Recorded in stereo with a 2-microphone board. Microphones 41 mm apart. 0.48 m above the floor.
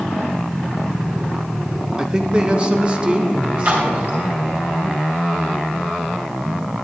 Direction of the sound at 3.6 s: 45° right (ahead or behind).